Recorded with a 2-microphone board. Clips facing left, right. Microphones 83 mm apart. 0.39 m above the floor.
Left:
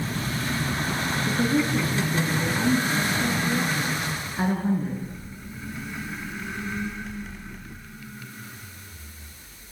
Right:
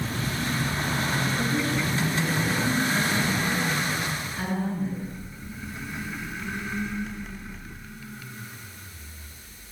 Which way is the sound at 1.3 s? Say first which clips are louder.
Left 3 dB; 25° left (ahead or behind).